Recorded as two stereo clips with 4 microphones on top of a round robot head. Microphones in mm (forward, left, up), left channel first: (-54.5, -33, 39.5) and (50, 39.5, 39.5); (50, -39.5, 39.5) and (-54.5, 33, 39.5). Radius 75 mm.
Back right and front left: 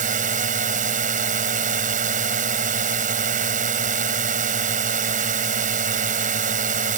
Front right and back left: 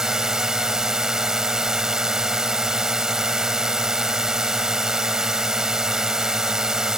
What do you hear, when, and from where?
0.0 s a drone: 60° left